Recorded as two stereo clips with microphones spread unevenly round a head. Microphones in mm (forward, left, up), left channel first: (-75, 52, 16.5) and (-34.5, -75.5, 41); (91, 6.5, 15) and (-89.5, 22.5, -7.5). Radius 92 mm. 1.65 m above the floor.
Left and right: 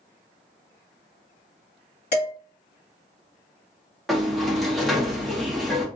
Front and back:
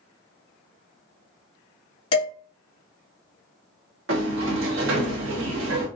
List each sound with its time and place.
2.1 s dishes clattering: 50° left, 2.5 m
4.1 s a sliding door: 160° right, 0.9 m